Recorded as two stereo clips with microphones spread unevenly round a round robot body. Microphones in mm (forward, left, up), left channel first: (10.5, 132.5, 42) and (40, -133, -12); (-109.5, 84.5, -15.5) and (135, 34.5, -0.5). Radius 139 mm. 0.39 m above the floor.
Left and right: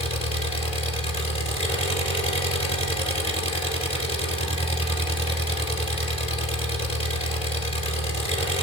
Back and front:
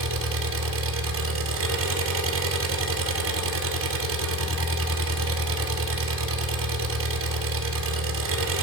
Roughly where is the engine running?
Ahead left.